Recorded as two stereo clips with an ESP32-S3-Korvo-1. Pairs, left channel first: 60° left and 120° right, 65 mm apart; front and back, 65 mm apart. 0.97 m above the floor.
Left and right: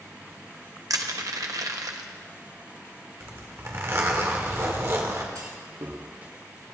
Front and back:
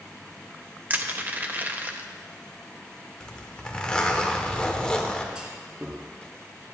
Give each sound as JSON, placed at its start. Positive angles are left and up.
{"t": 0.9, "sound": "crushing", "azimuth_deg": -120, "distance_m": 0.9}
{"t": 3.2, "sound": "a zipper", "azimuth_deg": -75, "distance_m": 1.5}
{"t": 5.3, "sound": "a clunk", "azimuth_deg": -105, "distance_m": 3.0}